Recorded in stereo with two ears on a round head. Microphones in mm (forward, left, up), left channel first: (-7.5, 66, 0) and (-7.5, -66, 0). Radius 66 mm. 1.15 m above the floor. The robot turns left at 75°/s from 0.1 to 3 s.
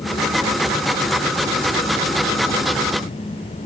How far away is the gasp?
No gasp in this recording.